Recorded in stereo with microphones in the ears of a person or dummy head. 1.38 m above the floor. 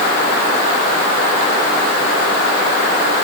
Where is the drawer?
No drawer in this recording.